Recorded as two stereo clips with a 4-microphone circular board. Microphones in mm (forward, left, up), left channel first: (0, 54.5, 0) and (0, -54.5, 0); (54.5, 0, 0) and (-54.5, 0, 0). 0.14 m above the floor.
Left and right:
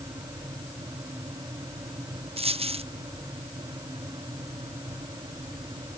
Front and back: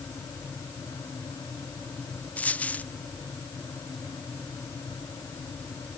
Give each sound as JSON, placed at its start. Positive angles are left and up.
{"t": 2.4, "sound": "a dropped coin", "azimuth_deg": -75}